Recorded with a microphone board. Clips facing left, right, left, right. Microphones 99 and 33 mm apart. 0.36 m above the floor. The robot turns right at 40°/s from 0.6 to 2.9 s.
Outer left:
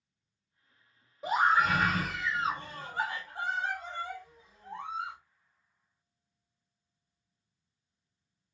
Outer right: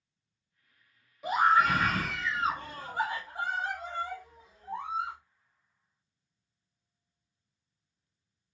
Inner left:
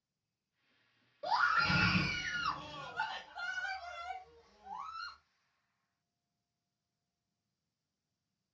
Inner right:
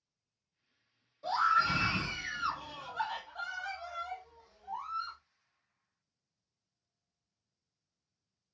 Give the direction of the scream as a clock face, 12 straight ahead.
8 o'clock.